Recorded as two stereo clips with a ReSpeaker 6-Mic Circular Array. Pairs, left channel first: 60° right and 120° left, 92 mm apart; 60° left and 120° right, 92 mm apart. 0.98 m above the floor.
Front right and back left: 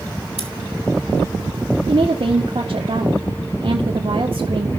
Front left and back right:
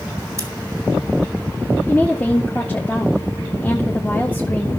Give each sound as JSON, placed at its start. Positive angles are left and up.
{"t": 0.4, "sound": "scissors", "azimuth_deg": -65, "distance_m": 3.0}
{"t": 1.9, "sound": "a woman speaking", "azimuth_deg": 130, "distance_m": 1.8}